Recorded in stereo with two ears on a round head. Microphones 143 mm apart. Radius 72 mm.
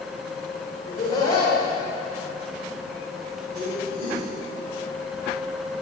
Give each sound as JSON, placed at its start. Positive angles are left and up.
{"t": 0.8, "sound": "laughter", "side_deg": 30, "distance_m": 1.7}